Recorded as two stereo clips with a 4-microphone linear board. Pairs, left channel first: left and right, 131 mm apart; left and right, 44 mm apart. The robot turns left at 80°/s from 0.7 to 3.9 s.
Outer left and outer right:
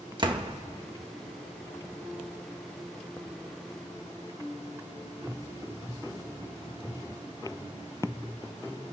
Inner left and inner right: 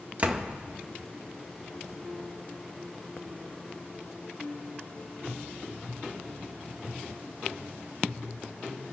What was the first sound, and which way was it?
A door slam, 35° right (ahead or behind).